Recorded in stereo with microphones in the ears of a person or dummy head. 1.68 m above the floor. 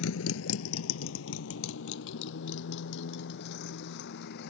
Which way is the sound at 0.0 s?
75° left (ahead or behind).